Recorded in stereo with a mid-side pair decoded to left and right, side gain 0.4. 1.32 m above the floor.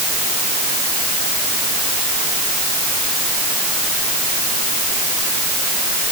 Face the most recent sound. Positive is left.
No sound to turn to.